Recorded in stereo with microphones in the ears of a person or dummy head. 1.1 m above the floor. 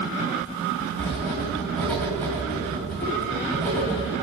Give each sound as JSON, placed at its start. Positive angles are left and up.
{"t": 1.0, "sound": "writing", "side_deg": 5, "distance_m": 1.1}